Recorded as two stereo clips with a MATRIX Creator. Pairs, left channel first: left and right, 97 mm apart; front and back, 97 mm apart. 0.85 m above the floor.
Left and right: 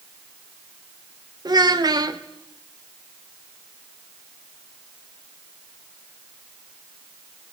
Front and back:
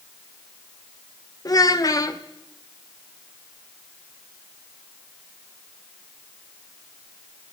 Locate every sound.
1.4 s a child speaking: 45° right, 1.2 m